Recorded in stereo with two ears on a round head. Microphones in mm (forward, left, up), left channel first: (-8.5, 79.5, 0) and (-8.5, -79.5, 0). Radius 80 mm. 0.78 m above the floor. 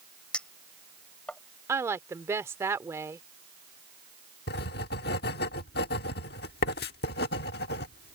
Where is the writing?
60° left (ahead or behind).